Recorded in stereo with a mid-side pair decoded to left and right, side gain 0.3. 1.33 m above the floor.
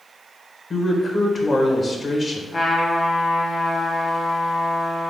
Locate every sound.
0.7 s a man speaking: 50° left, 1.3 m
2.5 s a trumpet: 40° left, 1.3 m